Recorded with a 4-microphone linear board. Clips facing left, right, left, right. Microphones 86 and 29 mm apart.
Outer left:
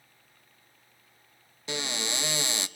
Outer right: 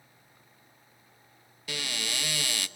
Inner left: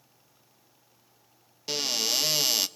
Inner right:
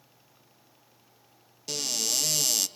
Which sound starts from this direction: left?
A cupboard door, at 1.7 s.